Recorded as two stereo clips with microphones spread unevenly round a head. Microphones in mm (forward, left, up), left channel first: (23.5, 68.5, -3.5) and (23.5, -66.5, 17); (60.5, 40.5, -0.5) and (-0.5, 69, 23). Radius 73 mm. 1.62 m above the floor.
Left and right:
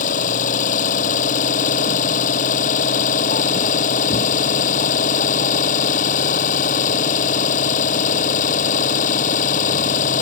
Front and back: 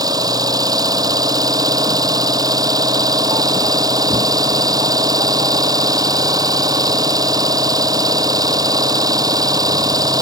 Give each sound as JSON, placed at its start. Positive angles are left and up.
{"t": 0.0, "sound": "an engine running", "azimuth_deg": 130}